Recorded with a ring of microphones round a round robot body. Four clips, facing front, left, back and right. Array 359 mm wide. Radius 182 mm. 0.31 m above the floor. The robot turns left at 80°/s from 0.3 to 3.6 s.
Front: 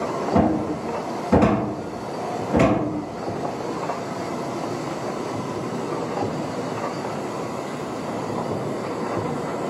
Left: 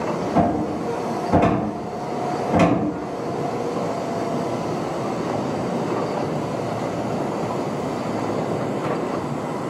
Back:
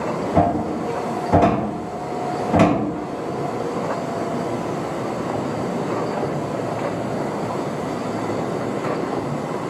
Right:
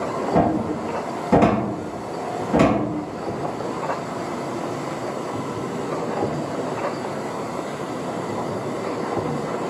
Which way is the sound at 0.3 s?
10° left.